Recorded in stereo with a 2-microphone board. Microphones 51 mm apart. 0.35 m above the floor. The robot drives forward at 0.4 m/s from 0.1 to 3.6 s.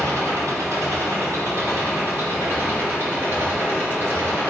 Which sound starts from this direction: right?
An engine running, at 0.0 s.